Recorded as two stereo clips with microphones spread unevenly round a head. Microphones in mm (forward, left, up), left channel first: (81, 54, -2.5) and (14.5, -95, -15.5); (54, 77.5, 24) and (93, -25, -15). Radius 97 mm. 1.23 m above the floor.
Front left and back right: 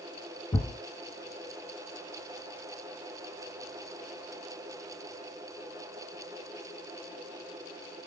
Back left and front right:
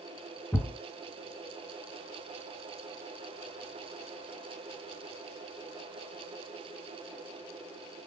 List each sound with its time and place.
0.5 s a thud: 90° left, 1.2 m